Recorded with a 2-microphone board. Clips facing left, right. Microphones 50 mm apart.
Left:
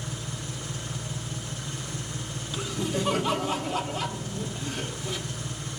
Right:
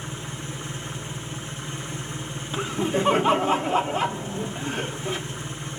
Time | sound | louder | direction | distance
0.0 | an engine running | right 2 dB | 25° right (ahead or behind) | 6.5 m
2.5 | laughter | right 5 dB | 30° right (ahead or behind) | 1.1 m